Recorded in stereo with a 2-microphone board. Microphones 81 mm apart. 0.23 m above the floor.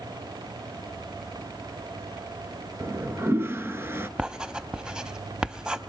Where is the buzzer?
No buzzer in this recording.